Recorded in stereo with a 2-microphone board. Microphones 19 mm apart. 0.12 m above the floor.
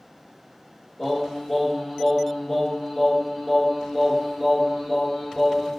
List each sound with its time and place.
1.0 s singing: 25° left (ahead or behind), 1.4 m